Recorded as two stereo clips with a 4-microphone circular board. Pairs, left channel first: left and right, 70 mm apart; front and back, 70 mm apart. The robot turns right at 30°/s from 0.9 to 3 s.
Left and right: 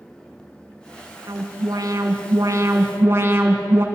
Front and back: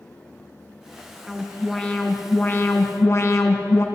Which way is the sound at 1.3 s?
90° right.